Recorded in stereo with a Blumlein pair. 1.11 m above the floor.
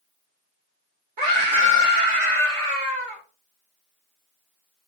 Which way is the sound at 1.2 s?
55° right.